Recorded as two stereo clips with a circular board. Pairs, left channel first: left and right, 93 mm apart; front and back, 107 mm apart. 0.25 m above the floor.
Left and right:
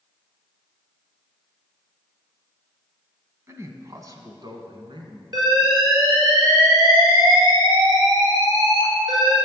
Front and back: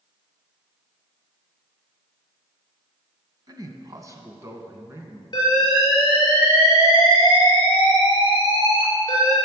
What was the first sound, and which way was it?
A man speaking, 140° right.